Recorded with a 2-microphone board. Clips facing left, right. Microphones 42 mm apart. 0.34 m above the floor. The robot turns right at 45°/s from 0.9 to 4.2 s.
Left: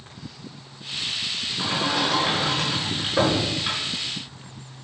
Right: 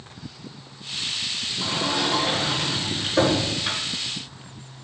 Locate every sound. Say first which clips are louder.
1.6 s a sliding door: left 1 dB; 80° left, 4.5 m; by 3.8 s straight behind, 4.5 m